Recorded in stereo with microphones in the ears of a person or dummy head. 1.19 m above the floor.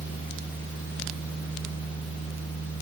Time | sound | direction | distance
0.0 | a fan | 5° right (ahead or behind) | 1.4 m